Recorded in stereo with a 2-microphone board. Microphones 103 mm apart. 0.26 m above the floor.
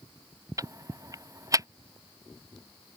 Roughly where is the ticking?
Right.